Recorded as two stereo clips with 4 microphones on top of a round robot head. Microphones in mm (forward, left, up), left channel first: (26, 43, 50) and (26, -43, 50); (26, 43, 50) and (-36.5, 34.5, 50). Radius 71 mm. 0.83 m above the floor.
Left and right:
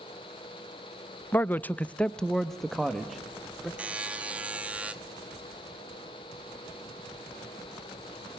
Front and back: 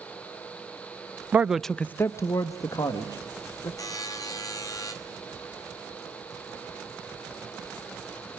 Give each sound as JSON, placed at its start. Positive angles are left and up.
{"t": 1.3, "sound": "a man speaking", "azimuth_deg": 145, "distance_m": 0.5}
{"t": 3.8, "sound": "a buzzer", "azimuth_deg": -15, "distance_m": 1.5}